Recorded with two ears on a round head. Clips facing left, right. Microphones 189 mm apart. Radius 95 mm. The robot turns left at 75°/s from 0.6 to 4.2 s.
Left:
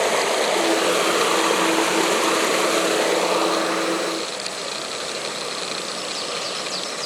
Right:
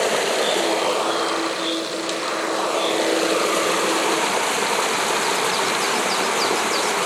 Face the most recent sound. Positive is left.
turn(degrees=-85)